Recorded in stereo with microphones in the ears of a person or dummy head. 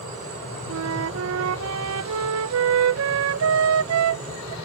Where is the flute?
80° right.